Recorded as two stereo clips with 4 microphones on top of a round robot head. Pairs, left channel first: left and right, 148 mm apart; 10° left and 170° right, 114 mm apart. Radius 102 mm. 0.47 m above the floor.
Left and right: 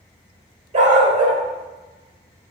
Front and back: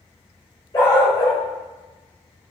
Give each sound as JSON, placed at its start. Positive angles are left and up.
{"t": 0.7, "sound": "a dog barking", "azimuth_deg": -55, "distance_m": 3.0}